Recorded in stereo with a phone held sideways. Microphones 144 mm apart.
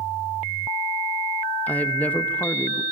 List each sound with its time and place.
1.7 s a woman speaking: 10° left (ahead or behind), 0.6 m